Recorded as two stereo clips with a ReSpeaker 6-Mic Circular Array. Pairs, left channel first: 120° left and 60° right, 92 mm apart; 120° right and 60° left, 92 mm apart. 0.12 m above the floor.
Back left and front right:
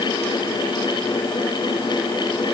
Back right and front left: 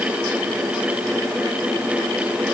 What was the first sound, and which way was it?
Only background noise.